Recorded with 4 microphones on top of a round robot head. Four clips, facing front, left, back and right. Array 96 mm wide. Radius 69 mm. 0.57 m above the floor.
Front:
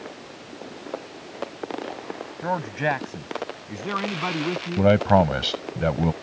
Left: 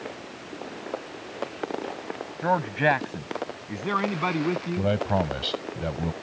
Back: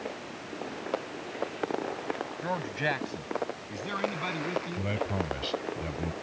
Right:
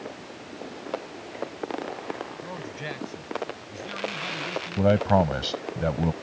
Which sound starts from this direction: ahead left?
A man speaking, at 2.4 s.